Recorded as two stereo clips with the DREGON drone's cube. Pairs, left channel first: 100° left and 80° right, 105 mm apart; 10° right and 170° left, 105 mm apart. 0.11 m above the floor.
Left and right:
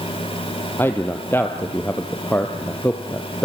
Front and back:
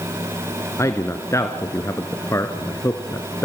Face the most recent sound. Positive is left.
turn(degrees=40)